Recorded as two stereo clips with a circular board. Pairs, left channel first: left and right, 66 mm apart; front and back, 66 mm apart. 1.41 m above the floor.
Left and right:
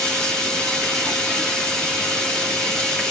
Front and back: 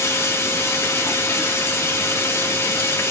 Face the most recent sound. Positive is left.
turn(degrees=15)